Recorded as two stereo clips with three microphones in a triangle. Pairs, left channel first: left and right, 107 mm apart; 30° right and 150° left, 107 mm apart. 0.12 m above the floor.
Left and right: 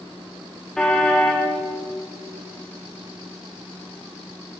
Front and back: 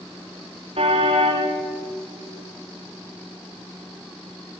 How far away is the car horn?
About 6.5 m.